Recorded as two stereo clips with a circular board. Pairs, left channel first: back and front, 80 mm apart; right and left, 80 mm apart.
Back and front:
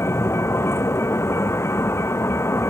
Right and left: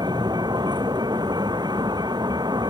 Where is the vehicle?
120° left.